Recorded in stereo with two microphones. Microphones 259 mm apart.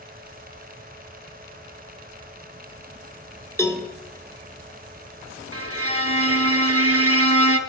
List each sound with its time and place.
3.6 s a cowbell: 10° left (ahead or behind), 0.7 m
5.5 s a violin: 60° right (ahead or behind), 0.6 m